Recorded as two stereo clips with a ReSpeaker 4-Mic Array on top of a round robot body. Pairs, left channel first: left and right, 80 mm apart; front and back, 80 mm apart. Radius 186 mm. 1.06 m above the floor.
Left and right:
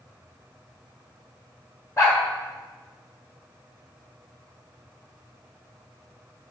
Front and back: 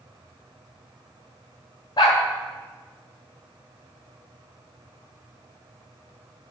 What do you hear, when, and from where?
2.0 s a dog barking: 35° left, 0.9 m